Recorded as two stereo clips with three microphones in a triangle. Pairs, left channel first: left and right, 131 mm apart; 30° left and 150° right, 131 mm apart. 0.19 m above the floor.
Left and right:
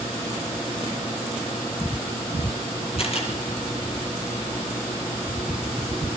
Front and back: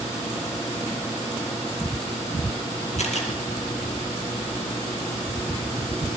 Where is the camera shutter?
55° left, 5 m.